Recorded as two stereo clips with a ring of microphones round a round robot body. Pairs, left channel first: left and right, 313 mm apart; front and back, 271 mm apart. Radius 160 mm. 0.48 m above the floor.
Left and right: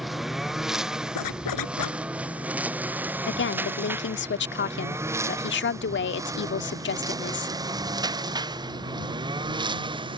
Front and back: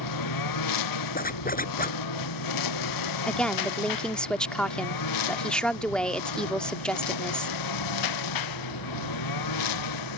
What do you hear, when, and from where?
0.0 s a lawn mower: straight ahead; by 10.2 s 15° right
1.1 s a zipper: 60° left
3.3 s a woman speaking: 85° left